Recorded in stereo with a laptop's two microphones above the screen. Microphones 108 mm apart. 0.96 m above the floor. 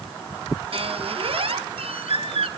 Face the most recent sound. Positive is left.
turn(degrees=-60)  # may be behind; listen again after turning